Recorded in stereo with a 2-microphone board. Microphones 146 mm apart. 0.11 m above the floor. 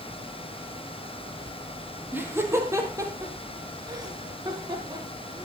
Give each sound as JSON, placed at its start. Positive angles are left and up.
{"t": 2.1, "sound": "laughter", "side_deg": -15, "distance_m": 3.5}